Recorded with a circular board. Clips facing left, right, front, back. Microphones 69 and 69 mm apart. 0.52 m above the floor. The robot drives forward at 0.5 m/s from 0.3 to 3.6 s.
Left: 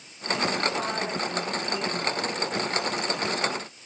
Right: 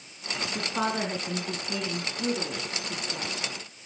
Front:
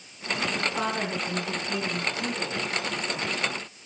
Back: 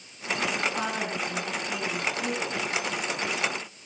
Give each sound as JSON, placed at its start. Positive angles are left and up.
{"t": 0.6, "sound": "a woman speaking", "azimuth_deg": -80, "distance_m": 5.0}